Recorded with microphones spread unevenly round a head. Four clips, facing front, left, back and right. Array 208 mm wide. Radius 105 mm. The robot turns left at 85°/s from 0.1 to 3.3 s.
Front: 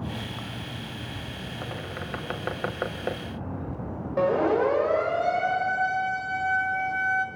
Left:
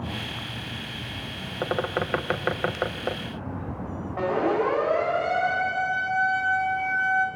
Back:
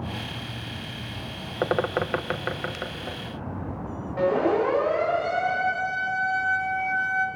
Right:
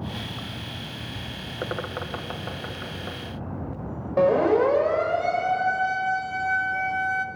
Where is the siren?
75° right, 4.5 m; by 7.3 s 60° right, 1.4 m.